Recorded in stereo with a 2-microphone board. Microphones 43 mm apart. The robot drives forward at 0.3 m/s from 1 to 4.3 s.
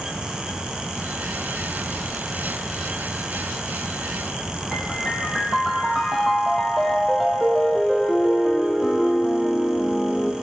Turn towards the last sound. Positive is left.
turn(degrees=0)  # may be behind; listen again after turning